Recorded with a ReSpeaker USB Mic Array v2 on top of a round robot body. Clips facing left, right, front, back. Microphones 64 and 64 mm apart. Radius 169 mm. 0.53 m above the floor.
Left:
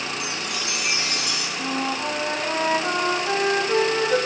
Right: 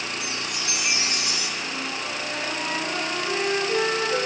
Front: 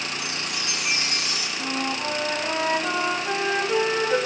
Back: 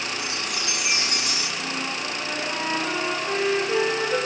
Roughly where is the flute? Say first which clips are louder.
Left 5 dB, front 2 dB; ahead left.